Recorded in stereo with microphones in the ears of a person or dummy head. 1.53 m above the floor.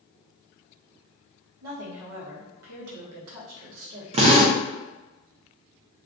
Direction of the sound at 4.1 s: 35° right (ahead or behind).